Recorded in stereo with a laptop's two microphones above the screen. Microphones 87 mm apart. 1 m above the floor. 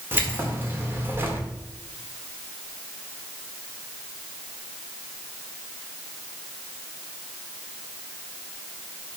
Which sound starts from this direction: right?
Keys jangling, at 0.1 s.